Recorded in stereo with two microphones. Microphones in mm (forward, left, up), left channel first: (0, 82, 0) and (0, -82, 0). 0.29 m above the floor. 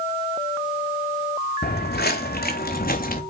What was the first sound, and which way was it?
Footsteps, 75° left (ahead or behind).